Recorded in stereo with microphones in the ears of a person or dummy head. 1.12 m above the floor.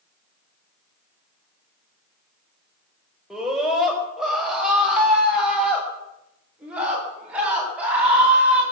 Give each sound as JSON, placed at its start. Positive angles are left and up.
{"t": 3.3, "sound": "a scream", "side_deg": -5, "distance_m": 5.0}